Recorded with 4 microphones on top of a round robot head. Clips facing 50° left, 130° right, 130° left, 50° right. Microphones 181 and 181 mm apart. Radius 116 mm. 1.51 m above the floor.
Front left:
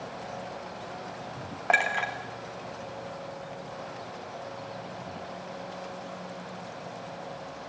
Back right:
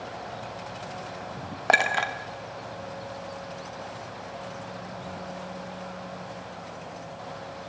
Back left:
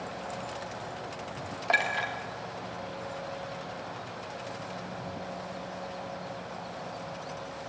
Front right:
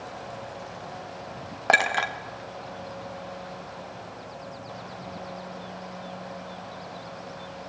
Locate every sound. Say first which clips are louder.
1.7 s a clink: back right 3 dB, front right 6 dB; 85° right, 1.3 m